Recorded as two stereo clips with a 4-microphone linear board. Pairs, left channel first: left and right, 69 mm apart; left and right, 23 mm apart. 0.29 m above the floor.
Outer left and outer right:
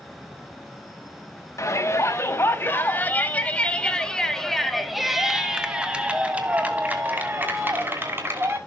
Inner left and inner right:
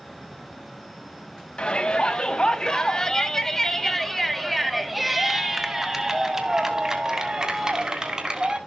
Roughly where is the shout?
Left.